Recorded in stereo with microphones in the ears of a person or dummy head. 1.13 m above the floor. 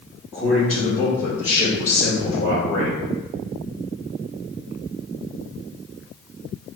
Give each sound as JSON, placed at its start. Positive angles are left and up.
{"t": 0.3, "sound": "a man speaking", "side_deg": 0, "distance_m": 1.8}